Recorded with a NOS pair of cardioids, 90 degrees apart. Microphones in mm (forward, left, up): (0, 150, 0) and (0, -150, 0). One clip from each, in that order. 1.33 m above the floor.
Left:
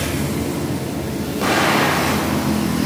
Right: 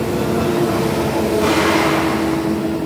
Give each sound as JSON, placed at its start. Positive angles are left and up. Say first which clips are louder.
{"t": 1.4, "sound": "an explosion", "louder": "left 1 dB", "azimuth_deg": 30, "distance_m": 4.0}